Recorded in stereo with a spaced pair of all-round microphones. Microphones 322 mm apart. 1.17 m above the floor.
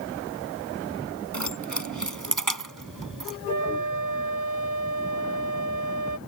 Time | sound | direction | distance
1.3 | keys jangling | 60° right (ahead or behind) | ?
3.5 | a flute | 65° right (ahead or behind) | ?